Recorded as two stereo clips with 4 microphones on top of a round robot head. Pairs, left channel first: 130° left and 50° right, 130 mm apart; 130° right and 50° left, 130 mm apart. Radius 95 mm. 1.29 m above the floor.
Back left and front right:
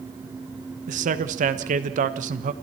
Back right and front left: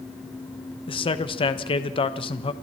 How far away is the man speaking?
About 1.2 m.